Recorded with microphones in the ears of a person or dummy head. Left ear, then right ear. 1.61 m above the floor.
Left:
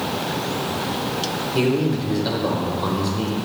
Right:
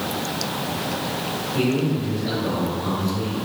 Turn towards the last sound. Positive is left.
turn(degrees=70)  # may be behind; listen again after turning